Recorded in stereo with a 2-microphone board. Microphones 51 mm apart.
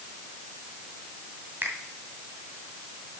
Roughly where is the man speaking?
No man speaking in this recording.